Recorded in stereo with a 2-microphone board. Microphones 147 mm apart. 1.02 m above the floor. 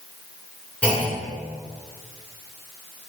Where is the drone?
No drone in this recording.